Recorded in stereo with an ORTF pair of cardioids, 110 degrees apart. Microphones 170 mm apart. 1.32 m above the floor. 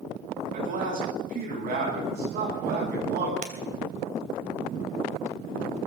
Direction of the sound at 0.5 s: 55° right.